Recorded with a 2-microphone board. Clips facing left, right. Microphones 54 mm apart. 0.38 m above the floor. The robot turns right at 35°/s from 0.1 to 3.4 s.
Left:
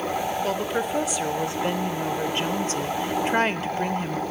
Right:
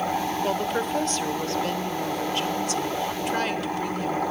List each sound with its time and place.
0.4 s a woman speaking: 10° right, 0.9 m; by 4.2 s 95° left, 0.9 m